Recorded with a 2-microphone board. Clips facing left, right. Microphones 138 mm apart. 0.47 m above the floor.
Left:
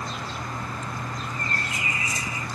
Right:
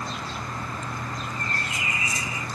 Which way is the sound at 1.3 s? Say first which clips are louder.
Even; 15° right (ahead or behind).